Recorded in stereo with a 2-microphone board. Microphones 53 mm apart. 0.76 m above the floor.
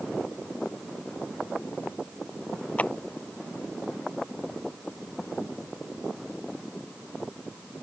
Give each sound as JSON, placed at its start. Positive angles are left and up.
{"t": 2.8, "sound": "a clap", "side_deg": 25}